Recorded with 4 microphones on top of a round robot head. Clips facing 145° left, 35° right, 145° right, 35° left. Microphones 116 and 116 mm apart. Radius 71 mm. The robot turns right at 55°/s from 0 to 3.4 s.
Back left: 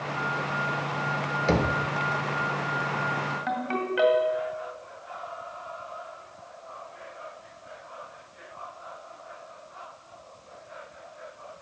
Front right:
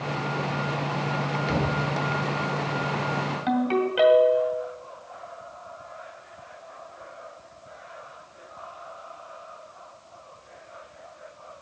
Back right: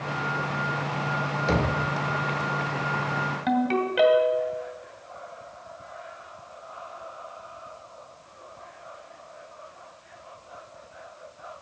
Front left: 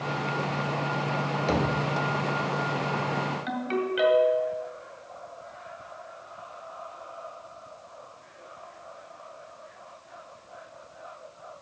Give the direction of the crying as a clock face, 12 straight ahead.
I don't hear crying.